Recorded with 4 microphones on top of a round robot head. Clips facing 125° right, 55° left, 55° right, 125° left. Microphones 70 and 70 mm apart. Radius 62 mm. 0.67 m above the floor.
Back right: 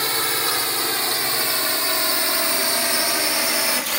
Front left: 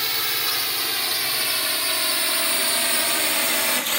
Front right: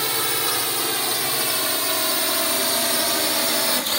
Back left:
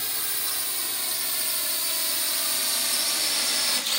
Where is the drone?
70° right; by 4.0 s 40° right.